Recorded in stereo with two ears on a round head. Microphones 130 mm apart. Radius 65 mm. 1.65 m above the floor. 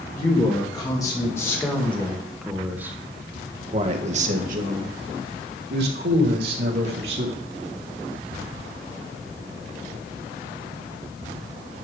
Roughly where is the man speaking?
Left.